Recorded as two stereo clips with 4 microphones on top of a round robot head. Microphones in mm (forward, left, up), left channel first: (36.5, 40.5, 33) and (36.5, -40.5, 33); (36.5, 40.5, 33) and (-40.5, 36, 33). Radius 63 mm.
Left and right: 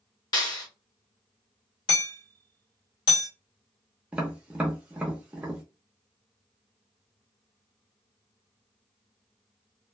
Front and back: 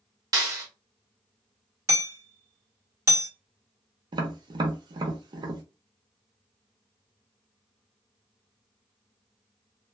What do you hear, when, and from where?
0.3 s a clap: 140° left, 1.2 m
1.9 s hammering: 130° left, 1.1 m
4.1 s tapping: 165° right, 0.7 m